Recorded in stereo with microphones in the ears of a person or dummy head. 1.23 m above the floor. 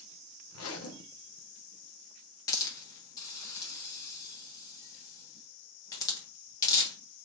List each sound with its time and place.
0.5 s a zipper: 80° left, 0.6 m
2.5 s a hiss: 25° left (ahead or behind), 1.3 m